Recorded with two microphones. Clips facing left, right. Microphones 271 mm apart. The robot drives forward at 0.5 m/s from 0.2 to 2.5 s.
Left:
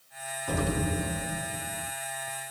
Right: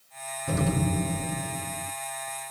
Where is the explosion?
30° right (ahead or behind), 1.9 m; by 1.9 s 25° right (ahead or behind), 2.5 m.